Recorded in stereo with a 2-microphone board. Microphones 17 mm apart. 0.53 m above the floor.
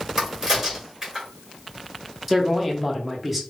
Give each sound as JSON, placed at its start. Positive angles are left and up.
{"t": 0.2, "sound": "a crack", "side_deg": -20, "distance_m": 1.6}
{"t": 2.3, "sound": "a man speaking", "side_deg": -5, "distance_m": 0.8}